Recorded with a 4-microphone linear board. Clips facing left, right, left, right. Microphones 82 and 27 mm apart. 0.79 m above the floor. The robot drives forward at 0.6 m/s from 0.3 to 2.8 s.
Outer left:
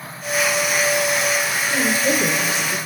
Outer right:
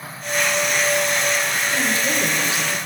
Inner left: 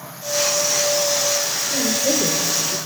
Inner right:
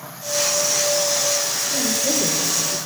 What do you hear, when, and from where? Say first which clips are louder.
1.7 s a woman speaking: outer left 5 dB, inner left 2 dB; 25° left (ahead or behind), 2.5 m; by 2.8 s 35° left (ahead or behind), 1.9 m